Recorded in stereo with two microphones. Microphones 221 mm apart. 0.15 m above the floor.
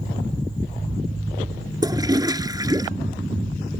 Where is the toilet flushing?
20° right (ahead or behind).